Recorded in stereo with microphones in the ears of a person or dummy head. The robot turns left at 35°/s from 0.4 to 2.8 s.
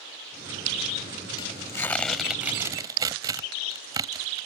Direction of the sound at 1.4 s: 30° left (ahead or behind).